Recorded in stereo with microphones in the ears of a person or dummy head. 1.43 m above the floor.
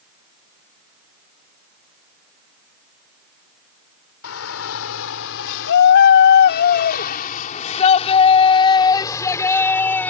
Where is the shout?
80° left; by 10.1 s 5° left (ahead or behind).